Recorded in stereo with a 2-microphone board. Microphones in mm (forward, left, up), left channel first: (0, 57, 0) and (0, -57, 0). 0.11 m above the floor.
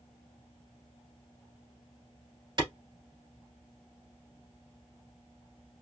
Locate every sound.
2.6 s a clap: 35° right (ahead or behind), 1.5 m